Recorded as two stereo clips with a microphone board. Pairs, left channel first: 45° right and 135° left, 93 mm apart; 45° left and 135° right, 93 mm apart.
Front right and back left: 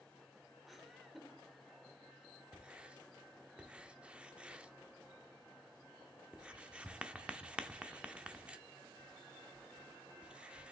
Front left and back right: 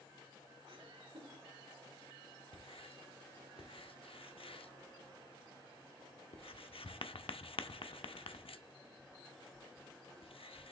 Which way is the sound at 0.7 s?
135° right.